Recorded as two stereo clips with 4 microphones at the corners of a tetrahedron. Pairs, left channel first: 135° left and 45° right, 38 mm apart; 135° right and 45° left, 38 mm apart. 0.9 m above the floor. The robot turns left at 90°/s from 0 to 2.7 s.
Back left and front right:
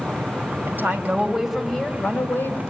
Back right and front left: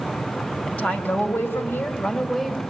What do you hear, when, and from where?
0.7 s a woman speaking: 70° right, 4 m; by 2.6 s 115° left, 4 m